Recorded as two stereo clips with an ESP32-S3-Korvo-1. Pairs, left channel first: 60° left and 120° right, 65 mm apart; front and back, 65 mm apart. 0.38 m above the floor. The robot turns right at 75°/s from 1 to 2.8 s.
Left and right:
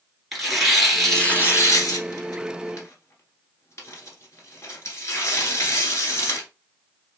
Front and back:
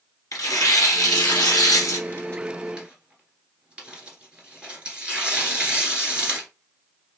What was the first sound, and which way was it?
Tearing paper, 30° right.